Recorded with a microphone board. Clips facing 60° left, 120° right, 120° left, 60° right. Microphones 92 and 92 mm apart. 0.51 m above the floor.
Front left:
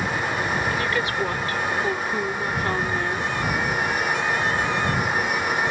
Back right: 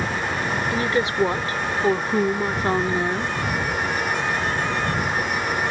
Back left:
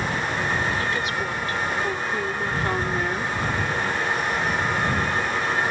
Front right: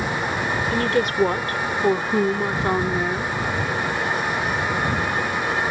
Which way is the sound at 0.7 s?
60° right.